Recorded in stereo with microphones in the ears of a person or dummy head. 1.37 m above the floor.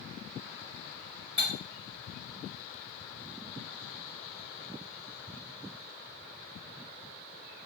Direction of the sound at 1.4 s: 30° right (ahead or behind).